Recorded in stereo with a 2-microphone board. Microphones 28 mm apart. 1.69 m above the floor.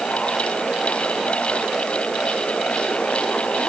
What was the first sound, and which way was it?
Only background noise.